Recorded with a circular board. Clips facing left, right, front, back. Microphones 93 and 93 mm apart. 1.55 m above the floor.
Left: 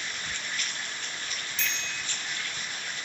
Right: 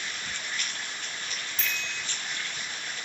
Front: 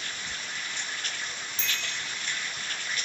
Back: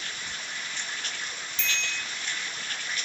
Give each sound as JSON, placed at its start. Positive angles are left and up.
{"t": 1.6, "sound": "a bicycle bell", "azimuth_deg": -50, "distance_m": 3.5}